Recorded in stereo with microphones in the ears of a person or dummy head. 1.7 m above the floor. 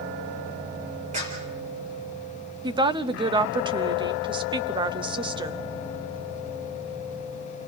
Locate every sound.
1.1 s a clap: 40° right (ahead or behind), 4 m
2.6 s a woman speaking: 25° right (ahead or behind), 0.7 m